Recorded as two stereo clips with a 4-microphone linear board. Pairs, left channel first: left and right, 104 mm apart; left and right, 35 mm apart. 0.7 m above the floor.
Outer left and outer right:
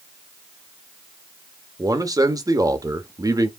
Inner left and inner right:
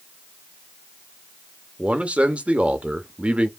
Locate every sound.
1.8 s a man speaking: 35° right (ahead or behind), 0.7 m